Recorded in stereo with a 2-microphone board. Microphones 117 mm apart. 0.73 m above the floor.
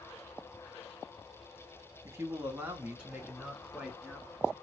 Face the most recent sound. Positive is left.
turn(degrees=0)  # may be behind; listen again after turning